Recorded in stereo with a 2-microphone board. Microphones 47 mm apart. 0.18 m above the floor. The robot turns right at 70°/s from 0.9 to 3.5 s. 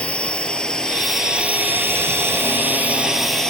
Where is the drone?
25° left (ahead or behind); by 3.5 s 15° left (ahead or behind).